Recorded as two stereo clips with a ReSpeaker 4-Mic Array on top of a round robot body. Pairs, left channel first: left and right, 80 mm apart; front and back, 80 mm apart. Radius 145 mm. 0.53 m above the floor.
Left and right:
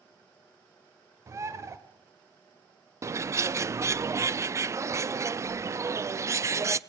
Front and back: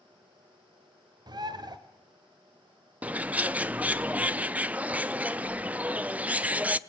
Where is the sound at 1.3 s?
145° right, 1.2 m.